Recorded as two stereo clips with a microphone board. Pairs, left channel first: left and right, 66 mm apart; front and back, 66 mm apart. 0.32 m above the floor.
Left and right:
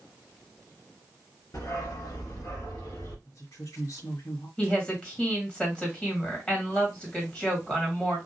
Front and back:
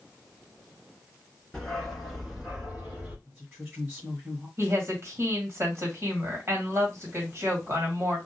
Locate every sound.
1.5 s a dog barking: 85° left, 1.8 m; by 3.1 s 110° left, 2 m
3.2 s a woman speaking: 110° left, 2 m
4.6 s a woman speaking: 160° left, 2 m